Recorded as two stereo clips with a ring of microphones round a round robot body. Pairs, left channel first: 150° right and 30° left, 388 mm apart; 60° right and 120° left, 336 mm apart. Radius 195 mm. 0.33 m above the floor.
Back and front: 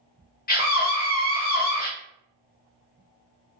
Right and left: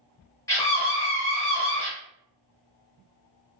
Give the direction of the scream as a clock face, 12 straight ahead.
4 o'clock.